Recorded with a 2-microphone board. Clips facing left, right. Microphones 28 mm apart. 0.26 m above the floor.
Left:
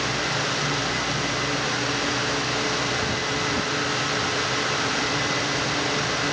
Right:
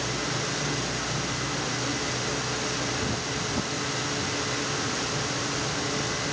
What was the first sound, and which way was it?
Only background noise.